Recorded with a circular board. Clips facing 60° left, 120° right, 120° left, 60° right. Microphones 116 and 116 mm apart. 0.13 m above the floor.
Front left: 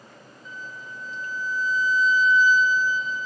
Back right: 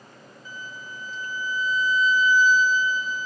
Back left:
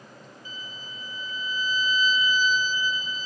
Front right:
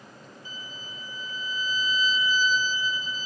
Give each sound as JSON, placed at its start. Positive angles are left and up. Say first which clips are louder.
{"t": 0.5, "sound": "a violin", "louder": "even, back left 1 dB", "azimuth_deg": -35, "distance_m": 0.8}